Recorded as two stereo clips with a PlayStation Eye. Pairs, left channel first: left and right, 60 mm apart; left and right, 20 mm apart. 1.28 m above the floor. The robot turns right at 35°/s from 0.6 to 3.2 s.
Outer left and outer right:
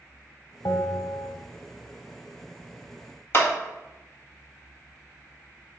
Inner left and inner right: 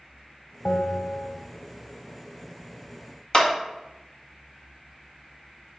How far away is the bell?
About 0.9 m.